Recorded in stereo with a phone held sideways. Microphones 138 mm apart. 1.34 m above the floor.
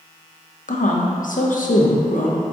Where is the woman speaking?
75° left (ahead or behind), 0.5 m.